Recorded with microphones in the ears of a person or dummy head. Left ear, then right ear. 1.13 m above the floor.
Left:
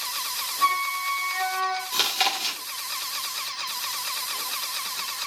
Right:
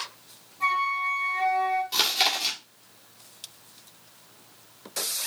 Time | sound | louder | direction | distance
0.6 | a flute | even | 55° left (ahead or behind) | 3 m
1.9 | chewing | left 1 dB | 10° left (ahead or behind) | 1.3 m